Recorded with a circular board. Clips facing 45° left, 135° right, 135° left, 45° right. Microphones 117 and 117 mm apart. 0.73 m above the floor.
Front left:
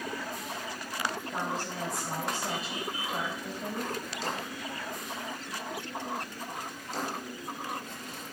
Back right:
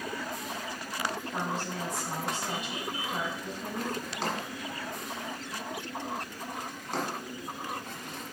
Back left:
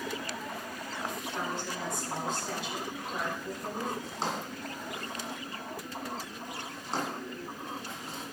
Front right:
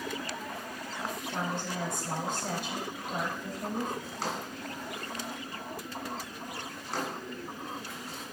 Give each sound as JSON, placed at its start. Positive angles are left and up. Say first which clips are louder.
{"t": 1.3, "sound": "a woman speaking", "louder": "even, front right 3 dB", "azimuth_deg": -15, "distance_m": 4.0}
{"t": 4.0, "sound": "a drawer", "louder": "back right 2 dB, back left 1 dB", "azimuth_deg": -160, "distance_m": 1.5}